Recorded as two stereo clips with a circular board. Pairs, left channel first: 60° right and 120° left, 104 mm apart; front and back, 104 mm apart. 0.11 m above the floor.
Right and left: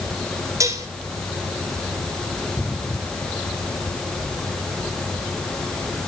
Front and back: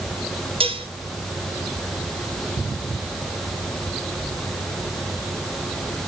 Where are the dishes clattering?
175° left, 1.5 m.